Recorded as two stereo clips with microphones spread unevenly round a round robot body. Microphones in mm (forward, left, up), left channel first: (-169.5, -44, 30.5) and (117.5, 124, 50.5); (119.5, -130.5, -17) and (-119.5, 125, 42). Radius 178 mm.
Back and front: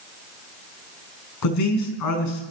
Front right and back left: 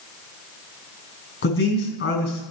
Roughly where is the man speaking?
Right.